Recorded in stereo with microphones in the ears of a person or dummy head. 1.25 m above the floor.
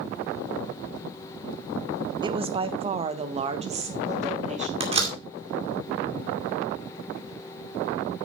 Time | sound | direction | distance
2.2 | a woman speaking | 25° right (ahead or behind) | 0.7 m
4.8 | a door slam | 35° right (ahead or behind) | 2 m